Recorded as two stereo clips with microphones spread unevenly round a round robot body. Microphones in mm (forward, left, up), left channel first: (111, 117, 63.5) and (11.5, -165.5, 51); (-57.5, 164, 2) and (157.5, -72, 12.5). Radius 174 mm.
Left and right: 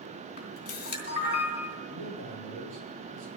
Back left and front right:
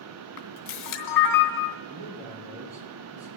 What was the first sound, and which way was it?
A camera shutter, 130° left.